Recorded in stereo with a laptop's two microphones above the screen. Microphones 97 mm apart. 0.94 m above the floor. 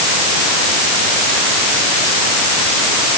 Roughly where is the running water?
No running water in this recording.